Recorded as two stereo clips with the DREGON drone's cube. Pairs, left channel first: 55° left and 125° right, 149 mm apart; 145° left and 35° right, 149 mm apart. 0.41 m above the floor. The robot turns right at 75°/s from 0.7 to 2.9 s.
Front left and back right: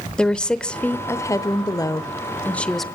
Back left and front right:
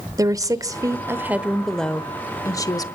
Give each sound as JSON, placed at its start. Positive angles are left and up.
{"t": 0.2, "sound": "a woman speaking", "azimuth_deg": -20, "distance_m": 0.8}